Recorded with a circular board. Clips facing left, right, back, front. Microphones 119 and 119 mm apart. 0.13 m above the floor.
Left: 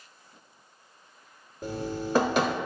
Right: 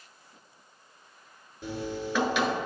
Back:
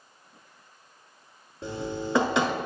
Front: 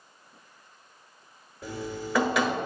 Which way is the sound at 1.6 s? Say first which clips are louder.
Left 1 dB, back 3 dB; 125° left.